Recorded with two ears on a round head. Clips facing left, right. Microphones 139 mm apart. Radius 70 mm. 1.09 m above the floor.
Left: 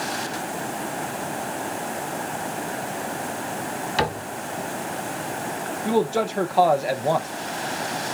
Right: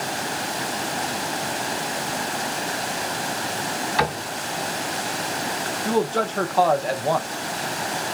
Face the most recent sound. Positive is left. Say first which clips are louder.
# left 1 dB
turn(degrees=10)  # may be behind; listen again after turning